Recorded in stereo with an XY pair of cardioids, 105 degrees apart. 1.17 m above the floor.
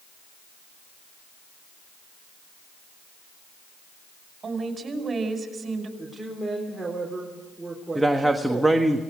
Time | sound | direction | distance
4.4 | a woman speaking | 40° right | 5.5 m
6.0 | a woman speaking | 10° right | 4 m
8.0 | a man speaking | 10° right | 1.4 m